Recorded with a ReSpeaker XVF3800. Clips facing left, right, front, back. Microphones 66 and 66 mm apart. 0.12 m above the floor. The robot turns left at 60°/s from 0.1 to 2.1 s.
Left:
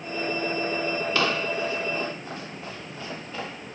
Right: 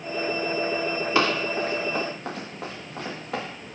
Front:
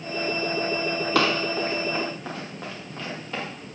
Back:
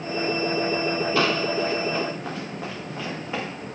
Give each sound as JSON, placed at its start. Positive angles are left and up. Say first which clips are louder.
{"t": 1.1, "sound": "running footsteps", "louder": "right 4 dB, front 1 dB", "azimuth_deg": -25, "distance_m": 8.5}